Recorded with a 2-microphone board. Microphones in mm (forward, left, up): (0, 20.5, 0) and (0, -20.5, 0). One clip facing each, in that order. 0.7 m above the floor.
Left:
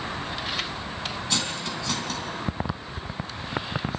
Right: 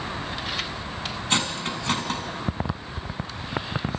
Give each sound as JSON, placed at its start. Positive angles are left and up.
{"t": 1.3, "sound": "cutlery clinking", "side_deg": -40, "distance_m": 3.0}